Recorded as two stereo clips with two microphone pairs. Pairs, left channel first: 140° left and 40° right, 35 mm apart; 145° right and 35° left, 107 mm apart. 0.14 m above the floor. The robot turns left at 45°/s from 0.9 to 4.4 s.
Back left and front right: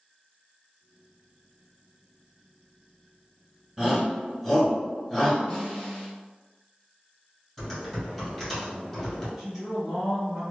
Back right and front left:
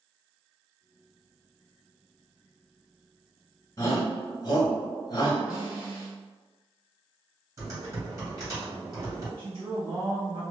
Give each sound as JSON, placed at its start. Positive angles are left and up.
{"t": 3.8, "sound": "a shout", "azimuth_deg": -120, "distance_m": 1.4}
{"t": 5.5, "sound": "a snare drum", "azimuth_deg": 110, "distance_m": 1.1}
{"t": 7.6, "sound": "typing on a keyboard", "azimuth_deg": 70, "distance_m": 1.8}
{"t": 9.4, "sound": "a woman speaking", "azimuth_deg": 55, "distance_m": 1.4}